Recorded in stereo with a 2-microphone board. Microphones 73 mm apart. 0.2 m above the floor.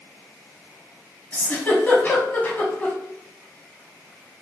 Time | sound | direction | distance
1.3 | a giggle | 25° left (ahead or behind) | 1.3 m